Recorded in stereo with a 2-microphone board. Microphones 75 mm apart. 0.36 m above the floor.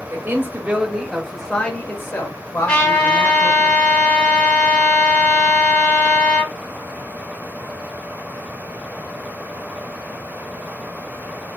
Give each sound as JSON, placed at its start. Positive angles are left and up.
{"t": 0.1, "sound": "a man speaking", "side_deg": -35, "distance_m": 1.1}
{"t": 2.7, "sound": "a trumpet", "side_deg": 25, "distance_m": 1.6}